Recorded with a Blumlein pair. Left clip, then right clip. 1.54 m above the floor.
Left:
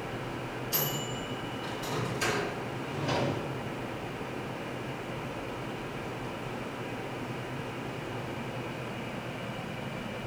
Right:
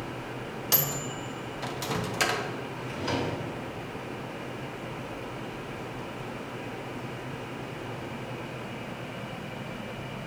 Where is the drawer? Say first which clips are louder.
Even; 40° right, 3 m.